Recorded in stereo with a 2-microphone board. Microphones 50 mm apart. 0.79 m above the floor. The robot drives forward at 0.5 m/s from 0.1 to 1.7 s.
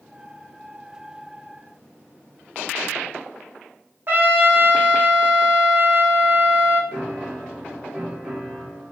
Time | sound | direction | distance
4.1 | a trumpet | 45° right (ahead or behind) | 0.5 m
6.9 | a piano | 15° right (ahead or behind) | 0.9 m